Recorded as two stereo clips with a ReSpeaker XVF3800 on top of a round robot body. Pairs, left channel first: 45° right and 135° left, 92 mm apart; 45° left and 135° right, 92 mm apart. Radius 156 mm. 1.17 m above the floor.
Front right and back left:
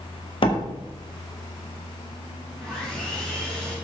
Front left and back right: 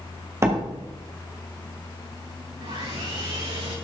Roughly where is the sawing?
Behind right.